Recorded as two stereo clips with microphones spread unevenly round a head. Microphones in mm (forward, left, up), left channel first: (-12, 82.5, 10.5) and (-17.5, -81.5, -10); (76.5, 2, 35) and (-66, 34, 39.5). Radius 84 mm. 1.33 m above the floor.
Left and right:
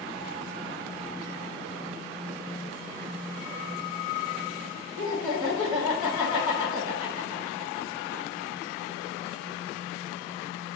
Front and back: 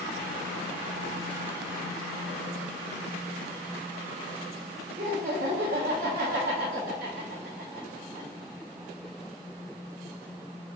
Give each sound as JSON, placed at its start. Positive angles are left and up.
{"t": 5.0, "sound": "laughter", "azimuth_deg": -150, "distance_m": 1.3}